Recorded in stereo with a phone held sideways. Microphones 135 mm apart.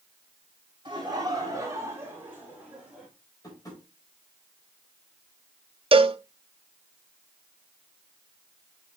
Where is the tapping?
25° left (ahead or behind), 4 m.